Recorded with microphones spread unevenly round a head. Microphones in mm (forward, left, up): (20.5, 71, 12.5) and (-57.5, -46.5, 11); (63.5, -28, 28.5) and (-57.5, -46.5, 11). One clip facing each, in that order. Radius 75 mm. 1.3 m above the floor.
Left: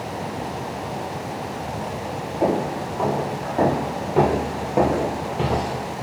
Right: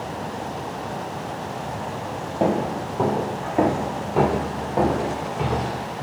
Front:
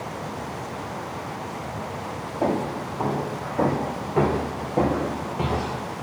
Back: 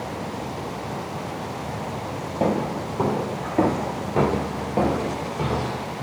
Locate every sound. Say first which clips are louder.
2.4 s footsteps: even, back 1 dB; 155° right, 2 m; by 5.8 s 70° left, 1.8 m